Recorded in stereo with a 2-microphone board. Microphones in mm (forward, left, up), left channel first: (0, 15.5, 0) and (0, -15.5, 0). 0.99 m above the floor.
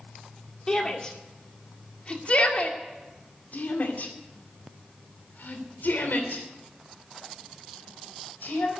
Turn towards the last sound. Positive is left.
turn(degrees=85)